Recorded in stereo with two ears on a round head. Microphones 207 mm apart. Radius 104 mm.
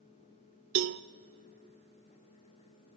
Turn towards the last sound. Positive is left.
turn(degrees=-55)  # may be behind; listen again after turning